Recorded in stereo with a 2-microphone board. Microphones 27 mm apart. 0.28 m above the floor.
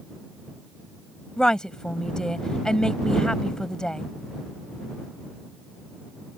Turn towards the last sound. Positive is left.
turn(degrees=30)  # may be behind; listen again after turning